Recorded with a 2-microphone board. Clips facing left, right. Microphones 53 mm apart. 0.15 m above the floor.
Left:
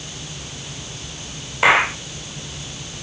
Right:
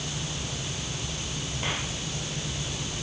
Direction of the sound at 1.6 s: 80° left.